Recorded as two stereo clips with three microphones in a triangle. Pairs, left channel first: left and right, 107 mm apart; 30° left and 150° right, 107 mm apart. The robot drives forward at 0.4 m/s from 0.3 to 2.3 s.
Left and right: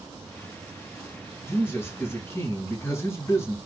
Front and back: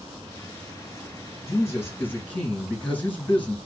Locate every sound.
1.4 s a man speaking: 45° left, 1.2 m; by 3.5 s 80° left, 1.1 m